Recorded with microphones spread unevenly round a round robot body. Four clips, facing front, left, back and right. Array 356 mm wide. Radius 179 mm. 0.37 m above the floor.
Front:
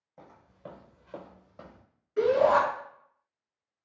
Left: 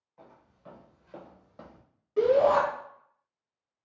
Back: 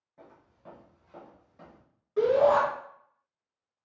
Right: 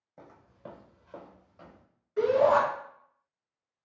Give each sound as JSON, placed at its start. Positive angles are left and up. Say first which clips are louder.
{"t": 0.2, "sound": "footsteps", "louder": "right 5 dB, front 5 dB", "azimuth_deg": -65, "distance_m": 0.9}
{"t": 2.2, "sound": "a shout", "louder": "left 1 dB, even", "azimuth_deg": 125, "distance_m": 1.7}